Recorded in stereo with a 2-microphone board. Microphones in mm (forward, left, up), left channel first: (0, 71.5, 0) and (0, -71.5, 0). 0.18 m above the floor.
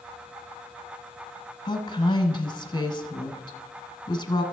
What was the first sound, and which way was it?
A woman speaking, 35° left (ahead or behind).